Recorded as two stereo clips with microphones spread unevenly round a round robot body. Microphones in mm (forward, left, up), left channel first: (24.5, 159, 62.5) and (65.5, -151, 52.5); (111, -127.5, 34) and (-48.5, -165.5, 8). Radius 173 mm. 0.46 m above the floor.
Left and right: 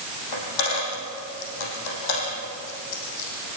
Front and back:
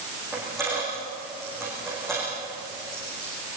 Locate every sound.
0.3 s a dropped coin: 100° left, 6.5 m